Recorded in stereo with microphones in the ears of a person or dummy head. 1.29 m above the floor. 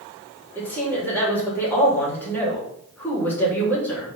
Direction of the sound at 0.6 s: 10° left (ahead or behind).